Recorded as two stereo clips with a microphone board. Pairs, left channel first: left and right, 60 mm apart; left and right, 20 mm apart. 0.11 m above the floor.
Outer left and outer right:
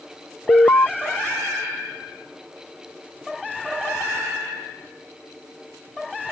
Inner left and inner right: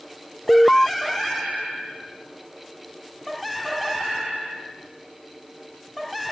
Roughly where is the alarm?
Left.